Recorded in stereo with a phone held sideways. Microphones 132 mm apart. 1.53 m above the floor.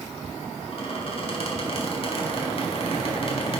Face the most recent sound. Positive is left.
turn(degrees=45)  # may be behind; listen again after turning